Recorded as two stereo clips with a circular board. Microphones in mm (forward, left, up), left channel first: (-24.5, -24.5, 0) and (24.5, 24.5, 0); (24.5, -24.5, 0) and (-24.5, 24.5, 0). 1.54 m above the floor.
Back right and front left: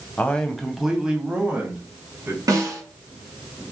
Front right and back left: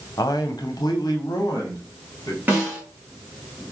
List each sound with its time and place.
0.2 s a man speaking: 65° right, 0.7 m; by 2.4 s 15° right, 1.8 m
2.5 s a snare drum: 70° left, 2 m